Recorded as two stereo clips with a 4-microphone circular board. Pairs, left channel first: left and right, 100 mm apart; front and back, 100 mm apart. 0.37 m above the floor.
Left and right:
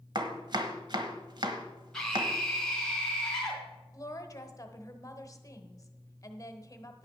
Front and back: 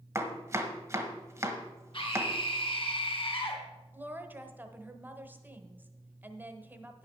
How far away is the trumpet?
I don't hear a trumpet.